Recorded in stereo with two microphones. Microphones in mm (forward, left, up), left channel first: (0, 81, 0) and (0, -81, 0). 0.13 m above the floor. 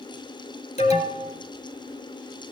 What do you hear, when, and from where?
0.8 s an alarm: 40° left (ahead or behind), 3 m